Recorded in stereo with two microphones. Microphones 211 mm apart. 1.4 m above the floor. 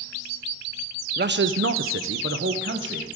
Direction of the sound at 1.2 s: 50° right (ahead or behind).